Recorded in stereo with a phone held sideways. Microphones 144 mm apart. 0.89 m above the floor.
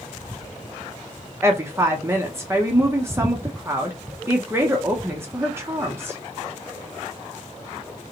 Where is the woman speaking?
20° right (ahead or behind), 0.6 m.